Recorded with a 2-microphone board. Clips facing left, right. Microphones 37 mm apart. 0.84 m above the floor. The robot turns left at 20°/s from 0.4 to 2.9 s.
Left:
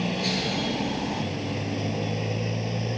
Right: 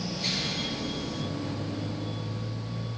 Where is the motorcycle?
140° left; by 3.0 s 90° left.